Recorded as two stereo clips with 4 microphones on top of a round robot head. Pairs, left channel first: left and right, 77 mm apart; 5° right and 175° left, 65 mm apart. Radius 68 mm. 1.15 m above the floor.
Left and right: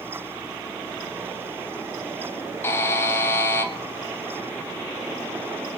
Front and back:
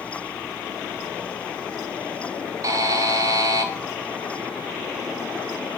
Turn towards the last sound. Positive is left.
turn(degrees=145)